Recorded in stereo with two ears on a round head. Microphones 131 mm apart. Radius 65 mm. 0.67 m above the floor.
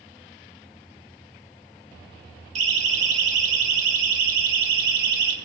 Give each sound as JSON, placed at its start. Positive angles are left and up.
{"t": 2.5, "sound": "a siren", "side_deg": -50, "distance_m": 4.5}